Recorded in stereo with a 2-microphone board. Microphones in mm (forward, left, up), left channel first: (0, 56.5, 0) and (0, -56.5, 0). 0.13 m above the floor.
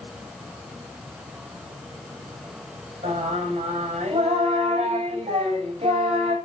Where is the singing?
60° right (ahead or behind), 8 m.